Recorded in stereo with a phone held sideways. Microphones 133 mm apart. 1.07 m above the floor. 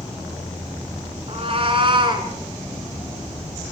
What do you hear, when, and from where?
1.3 s a cat meowing: 50° right (ahead or behind), 2.5 m; by 2.3 s 35° right (ahead or behind), 2.5 m